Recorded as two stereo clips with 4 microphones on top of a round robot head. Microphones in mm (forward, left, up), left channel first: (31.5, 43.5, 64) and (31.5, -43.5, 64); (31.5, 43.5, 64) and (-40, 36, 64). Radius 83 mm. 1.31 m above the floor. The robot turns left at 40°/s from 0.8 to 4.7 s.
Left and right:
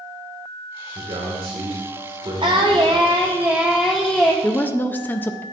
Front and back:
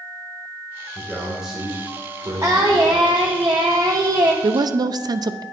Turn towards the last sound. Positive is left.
turn(degrees=160)